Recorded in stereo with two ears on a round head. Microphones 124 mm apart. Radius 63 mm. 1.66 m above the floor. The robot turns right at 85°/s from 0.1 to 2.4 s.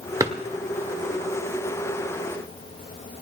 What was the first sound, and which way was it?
A drawer, 25° right (ahead or behind).